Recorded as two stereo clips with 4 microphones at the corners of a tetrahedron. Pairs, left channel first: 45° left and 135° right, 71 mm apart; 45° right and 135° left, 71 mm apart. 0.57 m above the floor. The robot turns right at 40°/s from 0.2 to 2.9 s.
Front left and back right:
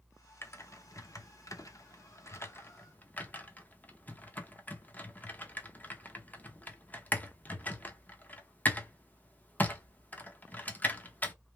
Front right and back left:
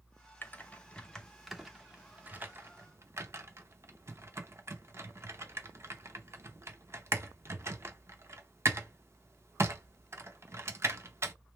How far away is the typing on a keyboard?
About 0.6 m.